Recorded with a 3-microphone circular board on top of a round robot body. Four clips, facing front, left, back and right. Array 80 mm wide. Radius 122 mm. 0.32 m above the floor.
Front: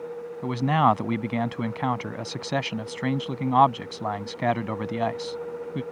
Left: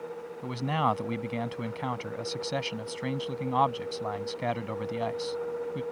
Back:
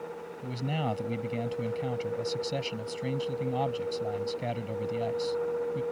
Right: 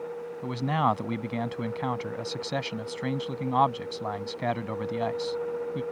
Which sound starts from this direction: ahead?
A man speaking, at 0.4 s.